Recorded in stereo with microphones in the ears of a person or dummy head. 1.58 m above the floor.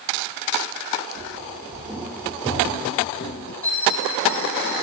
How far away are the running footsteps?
About 2.5 m.